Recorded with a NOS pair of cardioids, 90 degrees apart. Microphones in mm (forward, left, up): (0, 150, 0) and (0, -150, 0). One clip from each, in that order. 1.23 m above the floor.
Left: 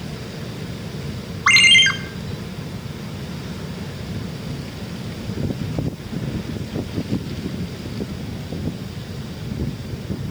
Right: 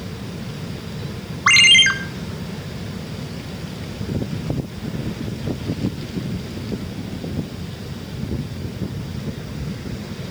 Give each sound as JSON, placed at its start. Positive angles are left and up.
{"t": 1.5, "sound": "a ringtone", "azimuth_deg": -5, "distance_m": 1.4}